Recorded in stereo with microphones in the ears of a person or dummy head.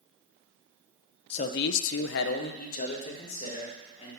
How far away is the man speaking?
About 0.5 m.